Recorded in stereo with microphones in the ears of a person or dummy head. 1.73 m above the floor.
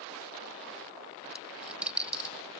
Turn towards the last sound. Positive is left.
turn(degrees=-5)  # may be behind; listen again after turning